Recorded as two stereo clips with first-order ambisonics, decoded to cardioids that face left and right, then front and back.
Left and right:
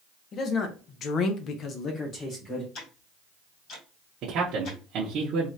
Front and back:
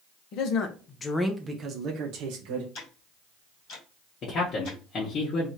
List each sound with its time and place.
0.3 s a man speaking: 30° left, 0.8 m; by 2.6 s 165° left, 0.9 m
2.8 s ticking: 45° left, 1.9 m
4.2 s a man speaking: 50° right, 0.8 m